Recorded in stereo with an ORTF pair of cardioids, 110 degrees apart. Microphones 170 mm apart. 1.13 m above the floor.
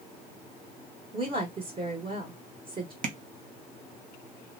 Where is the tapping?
55° right, 0.7 m.